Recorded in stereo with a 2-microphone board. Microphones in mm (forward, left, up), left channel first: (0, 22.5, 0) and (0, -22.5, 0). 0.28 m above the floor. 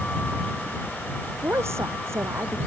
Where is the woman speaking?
75° right (ahead or behind).